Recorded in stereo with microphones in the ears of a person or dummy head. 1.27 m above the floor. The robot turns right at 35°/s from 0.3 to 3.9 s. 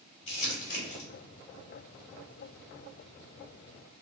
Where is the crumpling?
40° left (ahead or behind), 1.6 m; by 1.1 s 65° left (ahead or behind), 1.6 m.